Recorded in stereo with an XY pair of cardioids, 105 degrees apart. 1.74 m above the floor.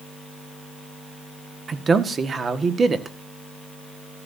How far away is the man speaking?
About 1.7 m.